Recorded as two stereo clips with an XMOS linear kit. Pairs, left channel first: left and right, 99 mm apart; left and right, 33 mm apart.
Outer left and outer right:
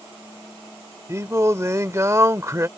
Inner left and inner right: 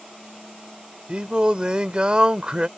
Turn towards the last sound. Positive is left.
turn(degrees=-30)  # may be behind; listen again after turning